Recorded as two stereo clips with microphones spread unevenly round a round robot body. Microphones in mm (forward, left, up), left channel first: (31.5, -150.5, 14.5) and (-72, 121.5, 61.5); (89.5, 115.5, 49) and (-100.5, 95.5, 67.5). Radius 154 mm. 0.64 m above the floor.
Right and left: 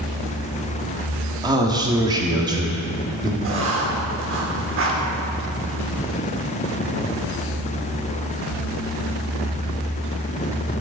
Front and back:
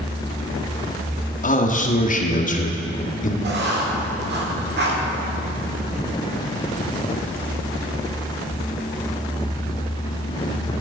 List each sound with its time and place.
1.4 s a man speaking: 30° left, 1.7 m
3.4 s writing: 160° left, 2.5 m